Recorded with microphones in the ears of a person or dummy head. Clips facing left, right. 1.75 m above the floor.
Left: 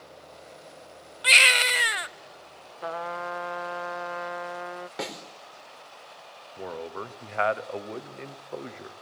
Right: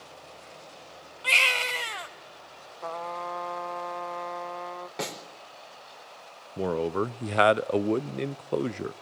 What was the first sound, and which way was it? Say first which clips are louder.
A baby crying: left 3 dB; 20° left (ahead or behind).